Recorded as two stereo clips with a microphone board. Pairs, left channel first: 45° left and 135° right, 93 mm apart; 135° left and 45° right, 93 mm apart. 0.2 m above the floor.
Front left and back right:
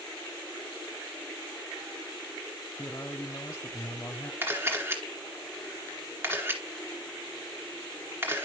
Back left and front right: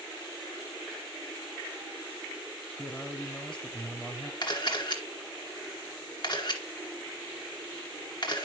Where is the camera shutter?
165° left, 2 m.